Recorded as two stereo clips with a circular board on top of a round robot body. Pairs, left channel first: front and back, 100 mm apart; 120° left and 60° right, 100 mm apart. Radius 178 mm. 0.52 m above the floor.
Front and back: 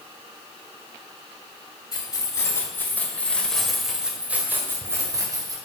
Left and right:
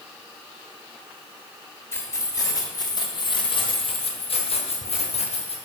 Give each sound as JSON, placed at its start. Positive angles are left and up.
{"t": 1.9, "sound": "keys jangling", "azimuth_deg": 55, "distance_m": 2.5}